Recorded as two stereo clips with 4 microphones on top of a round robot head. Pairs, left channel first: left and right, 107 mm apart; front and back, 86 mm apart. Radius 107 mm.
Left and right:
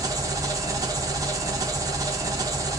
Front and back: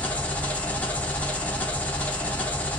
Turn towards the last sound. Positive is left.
turn(degrees=-60)